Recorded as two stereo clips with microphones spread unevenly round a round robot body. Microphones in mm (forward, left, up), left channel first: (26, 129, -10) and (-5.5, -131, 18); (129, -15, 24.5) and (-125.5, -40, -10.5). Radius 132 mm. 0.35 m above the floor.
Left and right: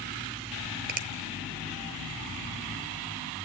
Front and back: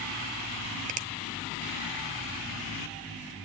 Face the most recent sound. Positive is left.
turn(degrees=-150)